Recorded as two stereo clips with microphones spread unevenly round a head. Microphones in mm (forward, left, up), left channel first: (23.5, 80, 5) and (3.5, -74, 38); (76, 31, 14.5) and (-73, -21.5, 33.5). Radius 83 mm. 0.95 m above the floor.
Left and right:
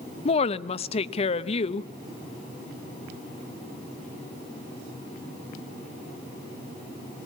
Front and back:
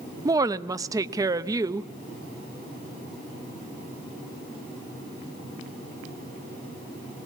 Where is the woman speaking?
130° left, 0.6 m.